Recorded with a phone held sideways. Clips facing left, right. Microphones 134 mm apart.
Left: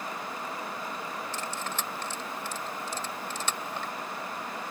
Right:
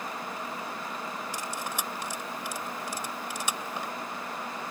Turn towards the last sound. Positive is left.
turn(degrees=-10)  # may be behind; listen again after turning